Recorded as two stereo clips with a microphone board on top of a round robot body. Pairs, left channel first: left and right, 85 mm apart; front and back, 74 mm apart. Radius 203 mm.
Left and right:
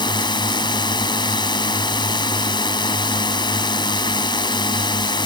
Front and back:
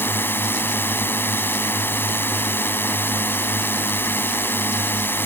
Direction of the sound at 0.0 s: 60° left.